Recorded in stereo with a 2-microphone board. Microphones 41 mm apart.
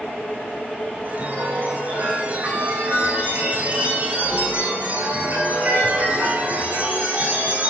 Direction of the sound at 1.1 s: 40° right (ahead or behind).